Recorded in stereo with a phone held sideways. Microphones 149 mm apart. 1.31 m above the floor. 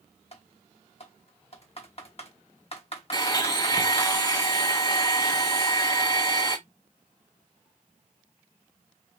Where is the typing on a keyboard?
45° left (ahead or behind), 1.0 m.